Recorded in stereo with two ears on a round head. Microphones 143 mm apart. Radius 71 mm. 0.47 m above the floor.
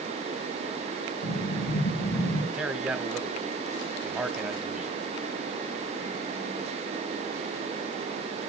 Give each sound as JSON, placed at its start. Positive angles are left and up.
{"t": 1.2, "sound": "an explosion", "side_deg": 80, "distance_m": 7.5}
{"t": 2.5, "sound": "a man speaking", "side_deg": -5, "distance_m": 1.3}